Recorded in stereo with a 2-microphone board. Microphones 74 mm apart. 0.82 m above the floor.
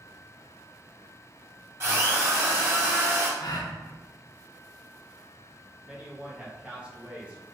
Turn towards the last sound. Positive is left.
turn(degrees=-15)  # may be behind; listen again after turning